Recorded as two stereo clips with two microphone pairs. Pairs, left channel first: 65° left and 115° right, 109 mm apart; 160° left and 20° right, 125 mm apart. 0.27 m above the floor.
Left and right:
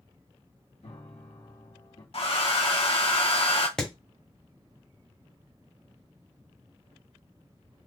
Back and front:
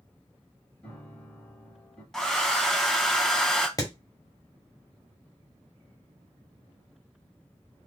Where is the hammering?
145° left, 1.2 m.